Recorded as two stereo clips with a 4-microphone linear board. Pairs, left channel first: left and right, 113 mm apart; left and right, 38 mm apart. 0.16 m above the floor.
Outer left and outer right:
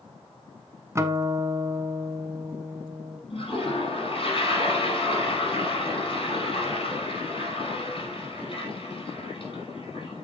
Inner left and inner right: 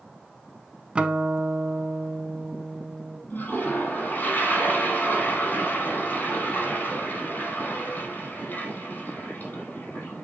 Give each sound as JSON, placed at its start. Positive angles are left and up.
{"t": 0.9, "sound": "a guitar", "side_deg": -25, "distance_m": 0.8}
{"t": 3.3, "sound": "a toilet flushing", "side_deg": 50, "distance_m": 5.0}